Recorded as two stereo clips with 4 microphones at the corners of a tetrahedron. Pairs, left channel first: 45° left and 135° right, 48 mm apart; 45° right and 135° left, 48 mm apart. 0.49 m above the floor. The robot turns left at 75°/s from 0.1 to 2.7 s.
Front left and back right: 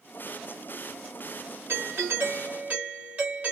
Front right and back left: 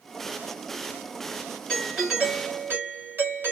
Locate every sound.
1.7 s a doorbell: 120° right, 2.5 m; by 3.5 s 165° left, 2.5 m